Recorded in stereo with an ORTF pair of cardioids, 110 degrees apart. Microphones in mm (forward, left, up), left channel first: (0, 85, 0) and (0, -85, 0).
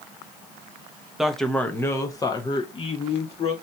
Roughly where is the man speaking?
Ahead.